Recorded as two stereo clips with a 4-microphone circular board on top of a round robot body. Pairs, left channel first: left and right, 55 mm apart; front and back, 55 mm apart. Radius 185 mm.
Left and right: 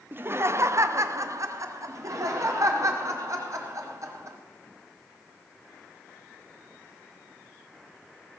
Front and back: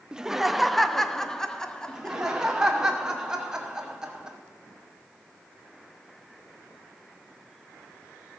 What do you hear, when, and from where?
0.1 s laughter: 115° right, 0.8 m; by 2.4 s 75° right, 2 m
1.9 s laughter: 105° right, 2.5 m